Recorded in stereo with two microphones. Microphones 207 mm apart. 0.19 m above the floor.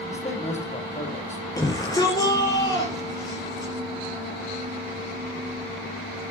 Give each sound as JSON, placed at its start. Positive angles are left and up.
{"t": 0.1, "sound": "a man speaking", "side_deg": 35, "distance_m": 7.0}
{"t": 1.6, "sound": "a shout", "side_deg": 20, "distance_m": 4.5}